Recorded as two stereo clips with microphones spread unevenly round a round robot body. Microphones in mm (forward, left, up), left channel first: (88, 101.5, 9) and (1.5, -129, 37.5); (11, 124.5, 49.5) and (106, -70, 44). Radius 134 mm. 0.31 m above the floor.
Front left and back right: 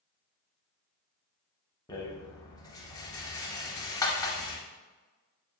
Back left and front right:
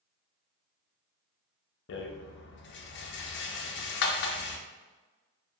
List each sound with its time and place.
1.9 s a rattle: 140° left, 0.5 m